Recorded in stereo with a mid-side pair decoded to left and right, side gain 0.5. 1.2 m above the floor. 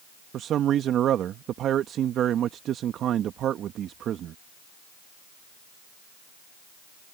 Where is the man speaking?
60° right.